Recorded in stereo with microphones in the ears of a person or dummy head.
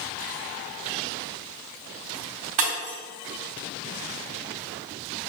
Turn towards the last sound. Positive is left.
turn(degrees=-20)  # may be behind; listen again after turning